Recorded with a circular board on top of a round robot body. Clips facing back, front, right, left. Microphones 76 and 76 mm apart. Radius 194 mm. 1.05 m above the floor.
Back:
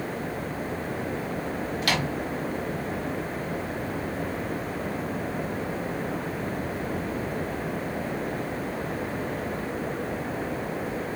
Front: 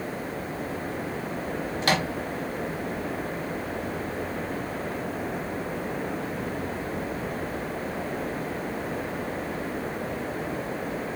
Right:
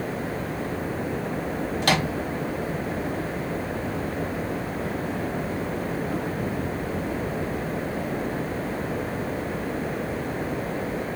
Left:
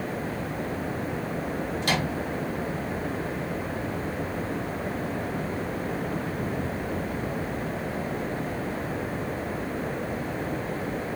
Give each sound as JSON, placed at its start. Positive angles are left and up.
{"t": 1.8, "sound": "a microwave", "azimuth_deg": -60, "distance_m": 0.6}